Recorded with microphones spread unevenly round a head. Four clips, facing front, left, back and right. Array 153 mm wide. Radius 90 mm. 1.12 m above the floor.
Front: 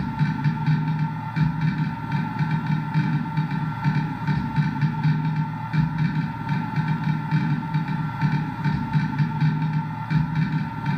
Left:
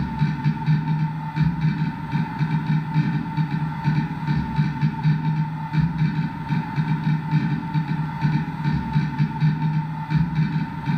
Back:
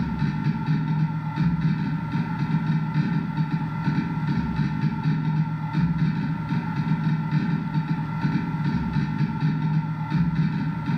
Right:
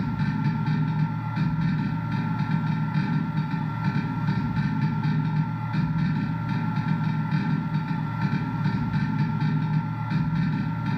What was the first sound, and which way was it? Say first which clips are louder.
A machine running: left 2 dB, front 1 dB; 35° left.